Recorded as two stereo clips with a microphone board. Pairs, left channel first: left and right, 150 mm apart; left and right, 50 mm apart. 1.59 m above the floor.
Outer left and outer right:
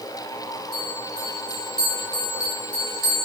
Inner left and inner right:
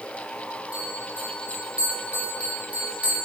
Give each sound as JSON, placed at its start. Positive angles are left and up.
{"t": 0.7, "sound": "a bell", "side_deg": -25, "distance_m": 1.7}